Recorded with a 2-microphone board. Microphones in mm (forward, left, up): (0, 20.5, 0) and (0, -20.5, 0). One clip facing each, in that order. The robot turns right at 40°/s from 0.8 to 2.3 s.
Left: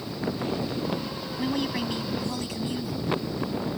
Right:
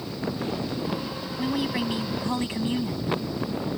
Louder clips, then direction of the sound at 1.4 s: Right 1 dB; straight behind.